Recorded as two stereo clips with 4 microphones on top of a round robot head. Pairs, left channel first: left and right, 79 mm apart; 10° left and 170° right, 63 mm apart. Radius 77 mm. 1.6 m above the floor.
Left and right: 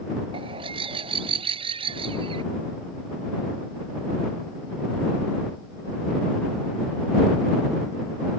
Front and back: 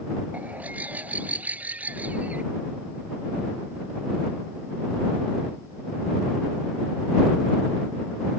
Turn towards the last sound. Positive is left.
turn(degrees=-95)